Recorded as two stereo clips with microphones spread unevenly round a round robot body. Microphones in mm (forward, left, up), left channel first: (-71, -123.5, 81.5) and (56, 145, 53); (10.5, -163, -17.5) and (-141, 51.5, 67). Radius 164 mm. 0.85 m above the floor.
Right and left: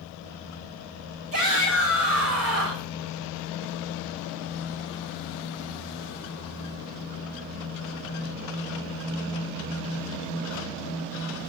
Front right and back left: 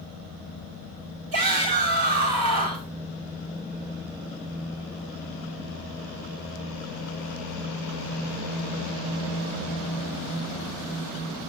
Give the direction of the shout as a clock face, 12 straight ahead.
9 o'clock.